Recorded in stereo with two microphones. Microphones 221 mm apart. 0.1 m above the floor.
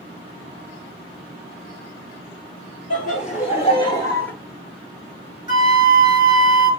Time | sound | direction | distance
2.9 | laughter | 35° left (ahead or behind) | 2 m
5.5 | a flute | 20° right (ahead or behind) | 1.1 m